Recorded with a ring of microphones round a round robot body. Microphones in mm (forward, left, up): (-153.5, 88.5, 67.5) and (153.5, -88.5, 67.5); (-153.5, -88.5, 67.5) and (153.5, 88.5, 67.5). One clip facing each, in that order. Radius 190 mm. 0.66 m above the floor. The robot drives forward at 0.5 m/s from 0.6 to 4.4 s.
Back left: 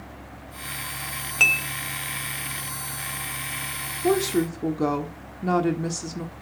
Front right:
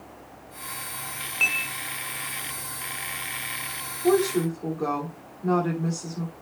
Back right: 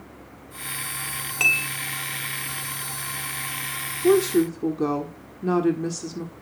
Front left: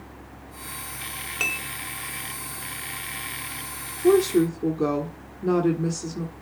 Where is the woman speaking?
120° left, 1.4 m; by 6.3 s 125° left, 1.4 m.